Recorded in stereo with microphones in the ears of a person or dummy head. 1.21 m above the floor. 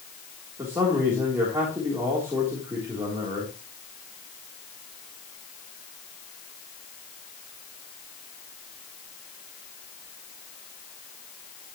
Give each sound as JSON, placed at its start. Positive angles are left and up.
{"t": 0.6, "sound": "a man speaking", "side_deg": -10, "distance_m": 3.0}